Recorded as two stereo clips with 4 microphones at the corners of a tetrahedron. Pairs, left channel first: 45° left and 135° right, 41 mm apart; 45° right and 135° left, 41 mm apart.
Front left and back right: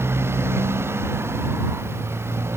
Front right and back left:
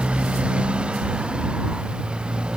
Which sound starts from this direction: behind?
A motorcycle, at 0.0 s.